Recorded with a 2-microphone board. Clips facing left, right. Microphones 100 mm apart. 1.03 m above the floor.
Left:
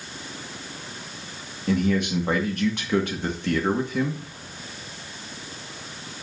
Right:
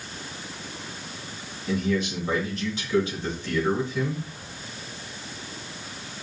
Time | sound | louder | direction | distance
1.7 | a man speaking | left 3 dB | 60° left (ahead or behind) | 1.8 m